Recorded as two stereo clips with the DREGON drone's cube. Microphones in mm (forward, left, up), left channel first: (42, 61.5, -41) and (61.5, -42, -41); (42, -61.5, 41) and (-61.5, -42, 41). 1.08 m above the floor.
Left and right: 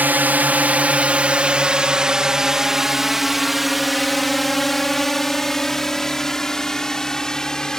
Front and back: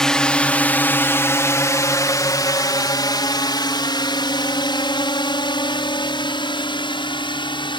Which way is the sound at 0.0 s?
85° right.